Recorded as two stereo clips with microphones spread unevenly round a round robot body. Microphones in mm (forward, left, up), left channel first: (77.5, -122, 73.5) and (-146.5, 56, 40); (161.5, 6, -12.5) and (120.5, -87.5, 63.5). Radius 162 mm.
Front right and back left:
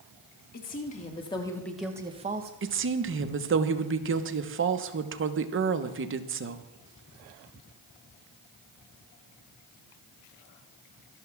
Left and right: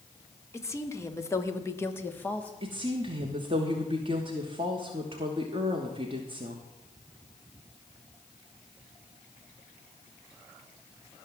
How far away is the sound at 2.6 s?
About 1.1 m.